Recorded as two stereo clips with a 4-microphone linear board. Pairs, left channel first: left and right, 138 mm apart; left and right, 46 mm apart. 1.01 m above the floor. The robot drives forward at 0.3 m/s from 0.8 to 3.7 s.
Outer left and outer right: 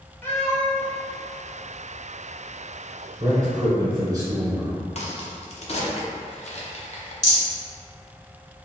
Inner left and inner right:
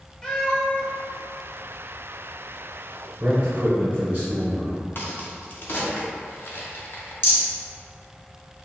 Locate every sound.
0.2 s a cat meowing: 15° left (ahead or behind), 0.8 m
3.2 s a man speaking: 30° right (ahead or behind), 0.8 m; by 4.9 s 25° right (ahead or behind), 0.9 m
5.0 s a crack: 50° left (ahead or behind), 0.6 m
7.2 s a rattle: 55° left (ahead or behind), 1.5 m